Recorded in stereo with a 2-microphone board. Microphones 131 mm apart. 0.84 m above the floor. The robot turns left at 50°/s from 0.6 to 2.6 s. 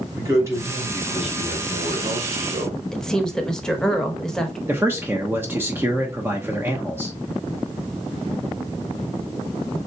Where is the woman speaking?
5° left (ahead or behind), 1.0 m.